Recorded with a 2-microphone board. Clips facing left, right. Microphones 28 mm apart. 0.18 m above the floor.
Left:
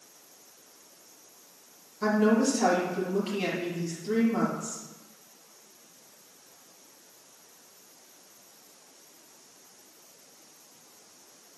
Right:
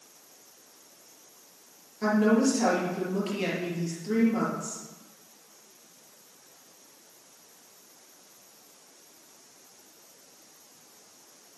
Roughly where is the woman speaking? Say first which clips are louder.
Right 1 dB; centre.